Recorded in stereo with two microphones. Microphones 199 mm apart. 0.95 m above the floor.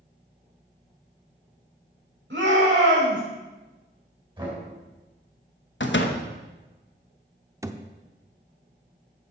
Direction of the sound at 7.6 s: 15° right (ahead or behind).